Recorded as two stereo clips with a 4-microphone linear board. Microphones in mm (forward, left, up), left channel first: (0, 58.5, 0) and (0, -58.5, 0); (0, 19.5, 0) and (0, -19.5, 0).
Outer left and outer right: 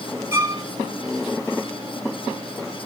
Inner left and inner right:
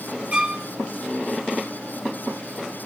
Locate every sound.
0.3 s a violin: 20° right (ahead or behind), 2.5 m